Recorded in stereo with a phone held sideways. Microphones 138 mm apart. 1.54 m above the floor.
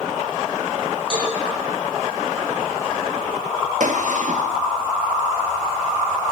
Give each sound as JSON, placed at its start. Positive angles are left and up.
{"t": 1.1, "sound": "a cowbell", "side_deg": 40, "distance_m": 7.5}
{"t": 3.8, "sound": "a gunshot", "side_deg": -65, "distance_m": 1.9}